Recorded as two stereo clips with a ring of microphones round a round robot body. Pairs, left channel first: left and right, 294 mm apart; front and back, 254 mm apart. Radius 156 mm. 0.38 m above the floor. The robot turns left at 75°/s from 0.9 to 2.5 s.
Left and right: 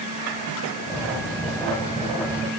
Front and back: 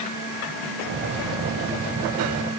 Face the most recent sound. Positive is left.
No sound to turn to.